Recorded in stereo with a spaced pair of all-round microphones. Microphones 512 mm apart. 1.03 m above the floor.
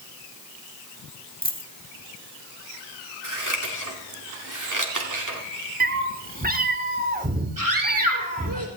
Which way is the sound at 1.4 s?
15° left (ahead or behind).